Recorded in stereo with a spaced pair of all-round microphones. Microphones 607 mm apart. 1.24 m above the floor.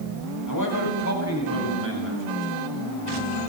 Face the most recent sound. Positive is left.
turn(degrees=20)  # may be behind; listen again after turning